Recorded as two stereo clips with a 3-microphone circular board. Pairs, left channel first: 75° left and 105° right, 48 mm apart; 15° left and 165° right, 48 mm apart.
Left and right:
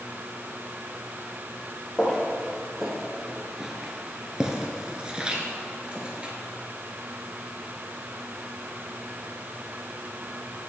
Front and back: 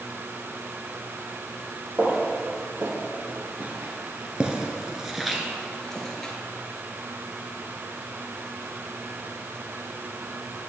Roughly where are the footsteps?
Behind.